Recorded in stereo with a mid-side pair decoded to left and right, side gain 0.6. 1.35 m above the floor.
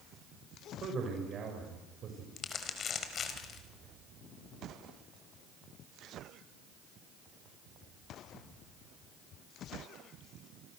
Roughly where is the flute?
I don't hear a flute.